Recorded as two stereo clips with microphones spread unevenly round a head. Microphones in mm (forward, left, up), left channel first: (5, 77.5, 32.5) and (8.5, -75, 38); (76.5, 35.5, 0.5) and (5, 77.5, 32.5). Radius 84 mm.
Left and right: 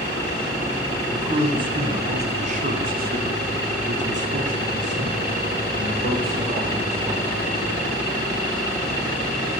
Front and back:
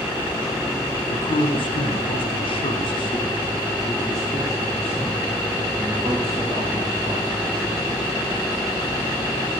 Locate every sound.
1.1 s a man speaking: 20° right, 2 m; by 7.8 s 135° right, 3.5 m